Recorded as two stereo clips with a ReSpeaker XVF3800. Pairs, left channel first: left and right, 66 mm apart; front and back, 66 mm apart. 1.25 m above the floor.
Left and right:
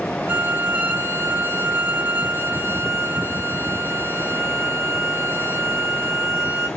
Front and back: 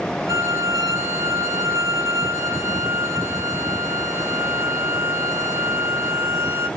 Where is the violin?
150° right, 2.5 m.